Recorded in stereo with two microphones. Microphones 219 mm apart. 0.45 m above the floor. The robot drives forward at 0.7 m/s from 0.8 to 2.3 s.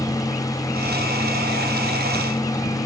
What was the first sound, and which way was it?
Only background noise.